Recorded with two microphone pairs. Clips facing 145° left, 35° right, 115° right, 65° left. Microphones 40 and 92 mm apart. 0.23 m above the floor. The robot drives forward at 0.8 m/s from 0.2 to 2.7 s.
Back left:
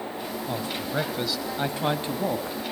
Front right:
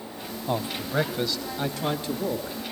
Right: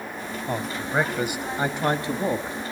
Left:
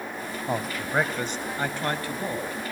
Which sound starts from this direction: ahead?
A man speaking, at 0.5 s.